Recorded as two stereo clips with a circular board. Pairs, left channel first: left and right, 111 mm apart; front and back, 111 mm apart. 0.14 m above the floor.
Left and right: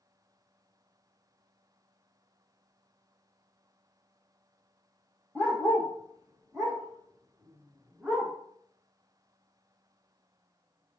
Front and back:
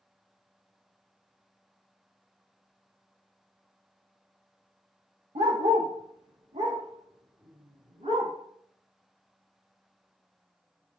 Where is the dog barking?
165° left, 2.0 m; by 8.3 s 170° right, 5 m.